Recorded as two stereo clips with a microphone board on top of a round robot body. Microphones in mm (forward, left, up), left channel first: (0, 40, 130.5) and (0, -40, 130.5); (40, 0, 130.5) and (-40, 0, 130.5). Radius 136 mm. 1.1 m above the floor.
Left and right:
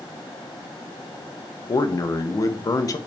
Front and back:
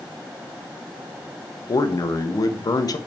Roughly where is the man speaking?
Ahead left.